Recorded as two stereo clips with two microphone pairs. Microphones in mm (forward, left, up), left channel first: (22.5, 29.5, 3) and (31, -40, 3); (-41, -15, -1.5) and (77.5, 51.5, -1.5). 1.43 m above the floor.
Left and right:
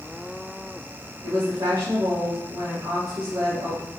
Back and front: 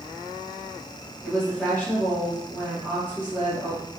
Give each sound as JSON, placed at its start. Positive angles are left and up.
{"t": 1.2, "sound": "a woman speaking", "azimuth_deg": -50, "distance_m": 1.7}